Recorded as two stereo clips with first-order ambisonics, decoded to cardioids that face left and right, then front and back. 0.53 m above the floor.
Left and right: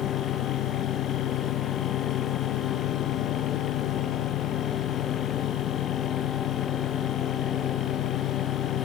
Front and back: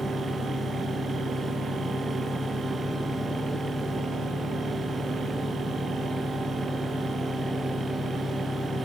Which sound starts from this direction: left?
An engine running, at 0.0 s.